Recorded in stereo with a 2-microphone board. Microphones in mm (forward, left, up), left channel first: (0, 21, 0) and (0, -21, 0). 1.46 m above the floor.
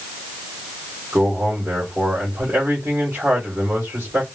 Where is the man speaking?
60° right (ahead or behind), 2.5 m.